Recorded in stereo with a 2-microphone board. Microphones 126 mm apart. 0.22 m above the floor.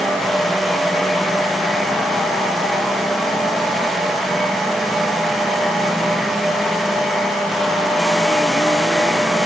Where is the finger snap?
No finger snap in this recording.